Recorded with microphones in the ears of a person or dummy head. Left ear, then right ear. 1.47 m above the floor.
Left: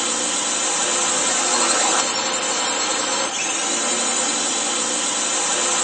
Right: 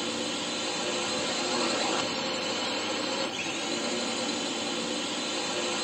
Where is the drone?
50° left (ahead or behind).